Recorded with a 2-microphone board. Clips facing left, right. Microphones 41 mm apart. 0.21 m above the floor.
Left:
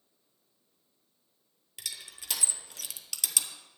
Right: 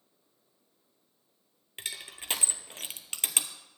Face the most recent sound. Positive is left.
turn(degrees=-40)  # may be behind; listen again after turning